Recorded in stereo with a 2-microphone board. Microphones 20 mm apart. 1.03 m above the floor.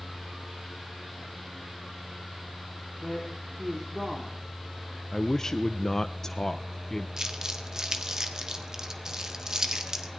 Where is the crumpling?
30° right (ahead or behind), 1.5 m.